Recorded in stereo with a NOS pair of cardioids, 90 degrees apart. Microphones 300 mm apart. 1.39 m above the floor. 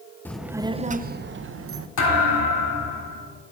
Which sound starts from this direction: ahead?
A child speaking, at 0.2 s.